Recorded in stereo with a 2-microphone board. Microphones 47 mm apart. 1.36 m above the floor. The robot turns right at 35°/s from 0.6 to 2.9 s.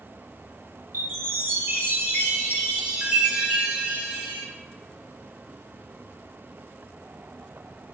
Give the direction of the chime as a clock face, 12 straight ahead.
3 o'clock.